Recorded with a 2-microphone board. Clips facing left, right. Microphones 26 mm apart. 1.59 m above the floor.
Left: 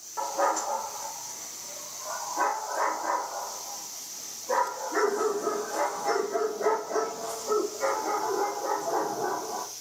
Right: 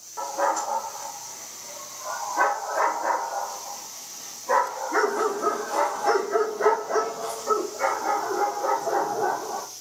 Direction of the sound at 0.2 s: 5° left (ahead or behind).